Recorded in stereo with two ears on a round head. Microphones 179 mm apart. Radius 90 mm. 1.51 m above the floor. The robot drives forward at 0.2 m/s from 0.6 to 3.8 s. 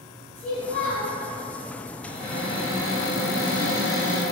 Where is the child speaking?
10° left (ahead or behind), 1.1 m.